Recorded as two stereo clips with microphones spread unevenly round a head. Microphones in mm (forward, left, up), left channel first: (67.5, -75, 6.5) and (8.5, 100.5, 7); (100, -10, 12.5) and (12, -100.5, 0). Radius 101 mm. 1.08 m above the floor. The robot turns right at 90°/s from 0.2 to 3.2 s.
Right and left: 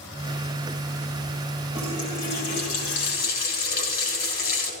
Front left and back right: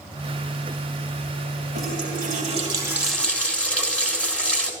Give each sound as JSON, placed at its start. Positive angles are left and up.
{"t": 1.8, "sound": "a running tap", "azimuth_deg": -165, "distance_m": 3.0}